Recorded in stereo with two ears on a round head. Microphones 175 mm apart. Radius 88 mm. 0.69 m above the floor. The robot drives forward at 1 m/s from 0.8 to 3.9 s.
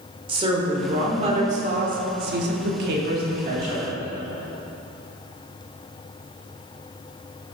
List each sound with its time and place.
0.3 s a woman speaking: 25° right (ahead or behind), 2 m; by 3.9 s 35° right (ahead or behind), 1.7 m